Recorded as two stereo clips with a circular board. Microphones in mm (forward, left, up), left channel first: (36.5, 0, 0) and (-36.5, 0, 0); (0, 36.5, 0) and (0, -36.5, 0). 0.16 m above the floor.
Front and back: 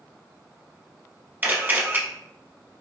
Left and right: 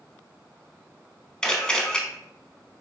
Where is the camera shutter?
160° left, 0.7 m.